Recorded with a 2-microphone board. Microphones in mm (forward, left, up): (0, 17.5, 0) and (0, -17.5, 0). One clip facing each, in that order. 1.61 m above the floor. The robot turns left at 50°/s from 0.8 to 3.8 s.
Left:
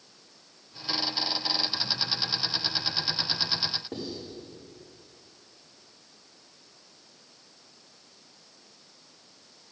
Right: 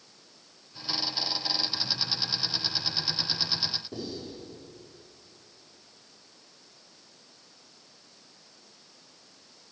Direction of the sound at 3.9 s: 55° left (ahead or behind).